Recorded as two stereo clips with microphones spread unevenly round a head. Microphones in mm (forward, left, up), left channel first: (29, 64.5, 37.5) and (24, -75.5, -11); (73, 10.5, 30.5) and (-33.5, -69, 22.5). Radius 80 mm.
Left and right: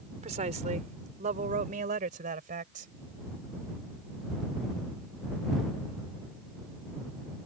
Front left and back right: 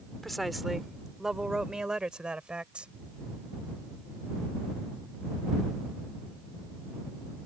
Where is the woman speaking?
50° right; by 2.9 s 60° right.